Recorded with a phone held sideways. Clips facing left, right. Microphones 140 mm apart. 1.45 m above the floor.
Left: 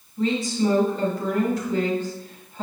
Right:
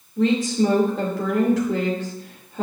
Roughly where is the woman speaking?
Right.